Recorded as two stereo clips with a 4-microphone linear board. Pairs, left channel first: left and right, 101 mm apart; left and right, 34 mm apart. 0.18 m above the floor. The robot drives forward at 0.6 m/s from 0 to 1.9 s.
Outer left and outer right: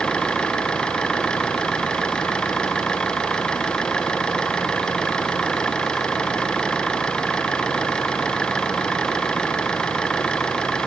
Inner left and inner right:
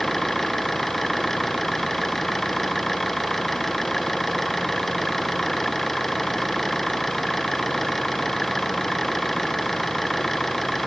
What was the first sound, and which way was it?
An engine running, 5° left (ahead or behind).